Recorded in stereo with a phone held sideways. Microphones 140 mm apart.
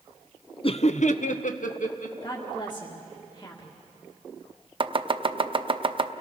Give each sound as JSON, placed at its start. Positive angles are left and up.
{"t": 0.6, "sound": "laughter", "side_deg": 40, "distance_m": 0.6}
{"t": 2.2, "sound": "a woman speaking", "side_deg": 30, "distance_m": 1.9}
{"t": 4.8, "sound": "chopping", "side_deg": -40, "distance_m": 0.7}